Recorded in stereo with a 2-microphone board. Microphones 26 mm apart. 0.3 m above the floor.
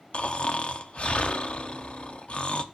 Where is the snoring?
55° left (ahead or behind), 0.7 m.